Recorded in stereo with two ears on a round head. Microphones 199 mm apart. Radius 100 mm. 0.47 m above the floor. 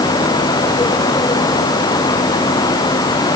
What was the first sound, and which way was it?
Only background noise.